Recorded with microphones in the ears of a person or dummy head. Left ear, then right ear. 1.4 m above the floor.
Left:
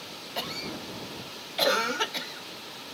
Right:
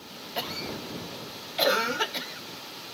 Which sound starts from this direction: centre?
A cough, at 0.4 s.